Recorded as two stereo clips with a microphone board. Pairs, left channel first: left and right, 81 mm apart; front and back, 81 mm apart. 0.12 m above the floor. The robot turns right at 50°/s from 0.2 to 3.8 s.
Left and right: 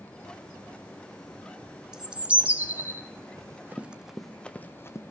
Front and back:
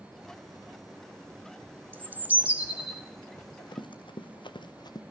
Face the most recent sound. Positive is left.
turn(degrees=35)